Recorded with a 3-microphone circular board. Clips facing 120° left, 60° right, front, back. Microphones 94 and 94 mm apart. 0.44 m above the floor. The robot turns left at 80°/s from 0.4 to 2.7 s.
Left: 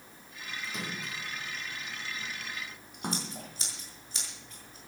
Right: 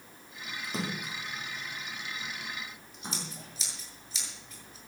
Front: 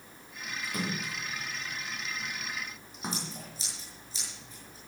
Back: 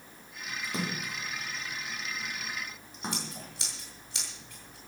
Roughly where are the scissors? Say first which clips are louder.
Left 3 dB, even; behind left.